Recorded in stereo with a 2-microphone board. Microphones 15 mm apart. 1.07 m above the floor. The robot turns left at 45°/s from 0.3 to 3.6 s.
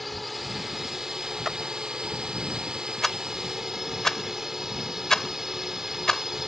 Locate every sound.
0.0 s a drone: straight ahead; by 6.5 s 150° right
1.4 s a clap: 15° right (ahead or behind); by 1.6 s 20° right (ahead or behind)
3.0 s a rattle: 10° left (ahead or behind); by 6.5 s 40° left (ahead or behind)